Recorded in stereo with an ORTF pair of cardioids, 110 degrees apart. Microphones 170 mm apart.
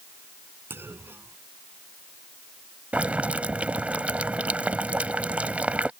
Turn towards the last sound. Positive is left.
turn(degrees=-10)